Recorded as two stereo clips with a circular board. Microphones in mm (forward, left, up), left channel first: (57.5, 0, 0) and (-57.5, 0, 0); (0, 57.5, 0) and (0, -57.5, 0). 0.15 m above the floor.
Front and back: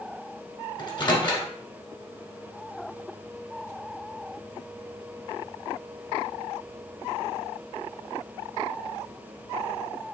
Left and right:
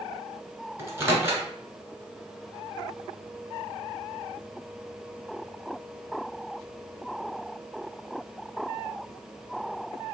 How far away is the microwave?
About 1.4 m.